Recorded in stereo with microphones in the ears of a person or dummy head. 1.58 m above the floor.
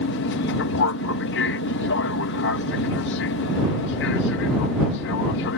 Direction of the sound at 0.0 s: 65° left (ahead or behind).